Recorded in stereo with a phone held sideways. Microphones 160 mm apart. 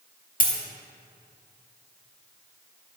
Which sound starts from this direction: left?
A dropped coin, at 0.4 s.